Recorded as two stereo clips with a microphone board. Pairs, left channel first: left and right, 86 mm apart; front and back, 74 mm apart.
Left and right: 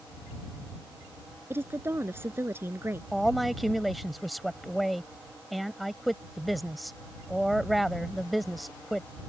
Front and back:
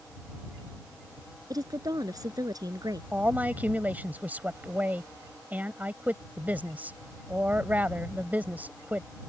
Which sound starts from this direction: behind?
A woman speaking, at 3.1 s.